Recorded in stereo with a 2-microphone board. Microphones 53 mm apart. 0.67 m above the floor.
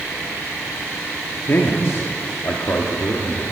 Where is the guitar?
No guitar in this recording.